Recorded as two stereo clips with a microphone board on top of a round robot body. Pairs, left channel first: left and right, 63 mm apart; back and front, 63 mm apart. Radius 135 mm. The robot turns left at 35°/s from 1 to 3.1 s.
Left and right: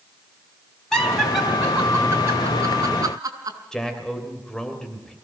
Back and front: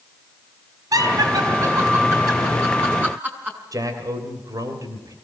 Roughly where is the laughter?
Ahead.